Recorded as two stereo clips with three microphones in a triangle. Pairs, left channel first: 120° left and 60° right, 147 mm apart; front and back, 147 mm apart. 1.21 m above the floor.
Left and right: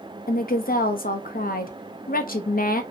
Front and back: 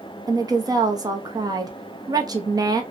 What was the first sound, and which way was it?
A woman speaking, 120° left.